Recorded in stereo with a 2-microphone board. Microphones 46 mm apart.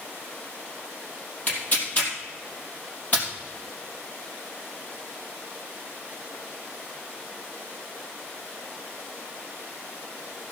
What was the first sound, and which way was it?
Tearing paper, 35° left (ahead or behind).